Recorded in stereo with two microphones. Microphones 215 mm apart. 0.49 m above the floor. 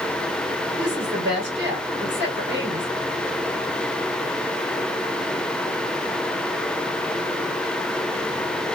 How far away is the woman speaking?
About 2.5 m.